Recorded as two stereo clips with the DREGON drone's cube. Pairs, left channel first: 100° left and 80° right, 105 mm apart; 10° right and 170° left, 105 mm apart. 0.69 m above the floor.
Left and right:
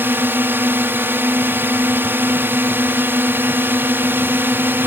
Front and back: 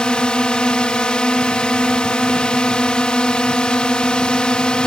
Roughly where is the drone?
Right.